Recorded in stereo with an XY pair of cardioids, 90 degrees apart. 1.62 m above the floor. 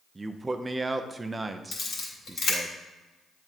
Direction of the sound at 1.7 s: 70° left.